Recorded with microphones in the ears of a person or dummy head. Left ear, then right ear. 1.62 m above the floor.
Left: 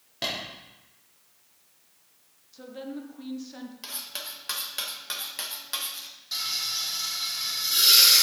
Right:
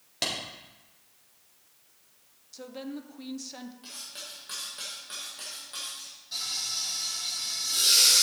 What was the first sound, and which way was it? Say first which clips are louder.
A clap: even; 25° right (ahead or behind).